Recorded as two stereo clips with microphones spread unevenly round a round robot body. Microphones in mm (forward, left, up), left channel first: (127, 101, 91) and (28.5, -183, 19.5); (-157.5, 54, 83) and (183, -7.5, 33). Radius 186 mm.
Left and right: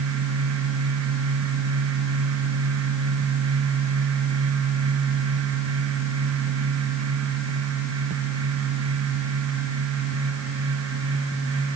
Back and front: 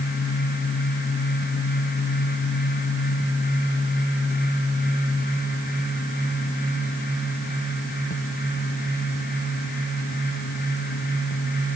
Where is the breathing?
No breathing in this recording.